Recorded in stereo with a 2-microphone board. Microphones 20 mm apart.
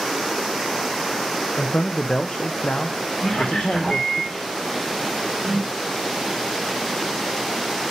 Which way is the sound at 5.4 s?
65° right (ahead or behind).